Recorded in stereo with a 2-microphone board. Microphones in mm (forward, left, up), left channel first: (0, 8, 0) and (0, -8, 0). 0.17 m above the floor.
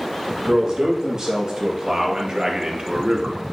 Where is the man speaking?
45° right (ahead or behind), 3.5 m.